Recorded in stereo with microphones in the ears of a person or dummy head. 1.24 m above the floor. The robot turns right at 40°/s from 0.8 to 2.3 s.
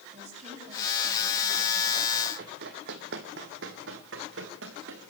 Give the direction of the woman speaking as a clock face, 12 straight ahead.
1 o'clock.